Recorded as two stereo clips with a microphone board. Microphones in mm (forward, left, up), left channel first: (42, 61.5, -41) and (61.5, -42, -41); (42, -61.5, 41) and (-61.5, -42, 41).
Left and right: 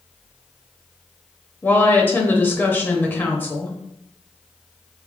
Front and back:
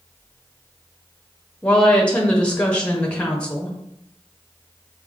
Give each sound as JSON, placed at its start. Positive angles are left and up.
{"t": 1.6, "sound": "a woman speaking", "azimuth_deg": 55, "distance_m": 0.7}